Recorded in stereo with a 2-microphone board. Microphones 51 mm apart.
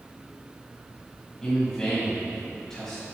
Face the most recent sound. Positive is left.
turn(degrees=10)  # may be behind; listen again after turning